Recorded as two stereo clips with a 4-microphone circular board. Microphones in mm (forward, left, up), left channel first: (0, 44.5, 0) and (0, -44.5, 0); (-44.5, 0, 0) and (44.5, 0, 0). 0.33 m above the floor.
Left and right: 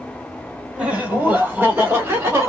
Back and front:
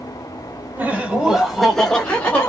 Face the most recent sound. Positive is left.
turn(degrees=-125)